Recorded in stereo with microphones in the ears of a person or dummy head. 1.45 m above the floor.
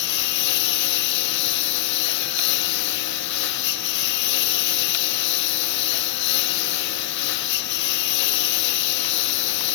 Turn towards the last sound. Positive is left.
turn(degrees=65)  # may be behind; listen again after turning